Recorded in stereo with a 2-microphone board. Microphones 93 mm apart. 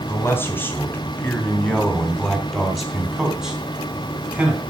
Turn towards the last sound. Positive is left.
turn(degrees=-15)  # may be behind; listen again after turning